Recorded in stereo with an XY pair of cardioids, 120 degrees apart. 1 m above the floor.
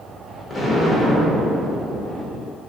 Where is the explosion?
30° left, 0.8 m.